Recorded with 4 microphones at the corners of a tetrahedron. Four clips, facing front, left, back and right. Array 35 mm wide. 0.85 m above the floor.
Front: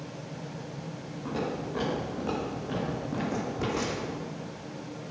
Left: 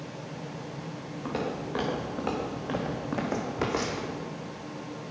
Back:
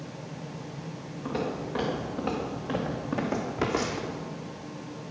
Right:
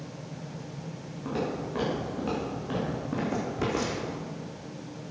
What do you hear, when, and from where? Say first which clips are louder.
1.2 s footsteps: right 1 dB, back 1 dB; 110° left, 4.5 m; by 4.1 s 145° left, 2 m